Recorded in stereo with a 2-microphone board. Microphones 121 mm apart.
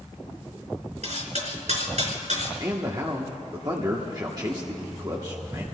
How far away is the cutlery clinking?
About 3.5 m.